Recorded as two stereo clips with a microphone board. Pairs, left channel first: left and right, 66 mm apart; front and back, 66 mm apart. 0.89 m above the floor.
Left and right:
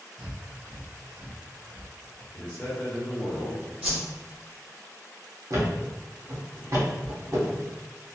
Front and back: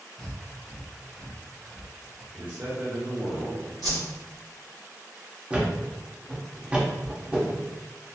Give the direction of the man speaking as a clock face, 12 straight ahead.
7 o'clock.